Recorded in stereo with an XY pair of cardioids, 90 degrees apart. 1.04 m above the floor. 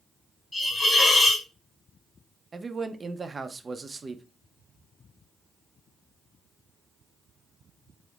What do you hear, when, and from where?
0.5 s a hiss: 30° left, 1.6 m
2.5 s a man speaking: 35° right, 0.5 m